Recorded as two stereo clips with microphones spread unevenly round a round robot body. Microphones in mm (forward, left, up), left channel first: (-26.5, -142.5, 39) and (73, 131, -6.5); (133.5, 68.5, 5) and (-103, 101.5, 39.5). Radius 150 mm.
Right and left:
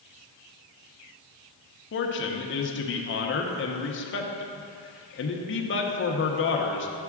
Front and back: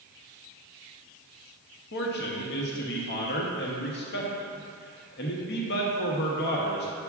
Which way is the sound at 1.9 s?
55° right.